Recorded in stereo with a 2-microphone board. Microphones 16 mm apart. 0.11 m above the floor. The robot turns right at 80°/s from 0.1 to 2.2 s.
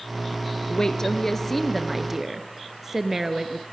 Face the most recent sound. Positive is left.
turn(degrees=-145)